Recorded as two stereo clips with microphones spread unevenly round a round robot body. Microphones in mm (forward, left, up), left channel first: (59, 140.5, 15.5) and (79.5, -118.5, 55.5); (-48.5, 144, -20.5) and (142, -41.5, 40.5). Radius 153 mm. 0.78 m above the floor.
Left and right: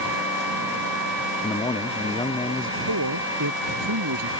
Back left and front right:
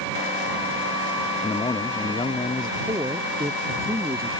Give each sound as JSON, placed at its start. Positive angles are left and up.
{"t": 1.4, "sound": "a man speaking", "azimuth_deg": 120}
{"t": 2.9, "sound": "a man speaking", "azimuth_deg": -125}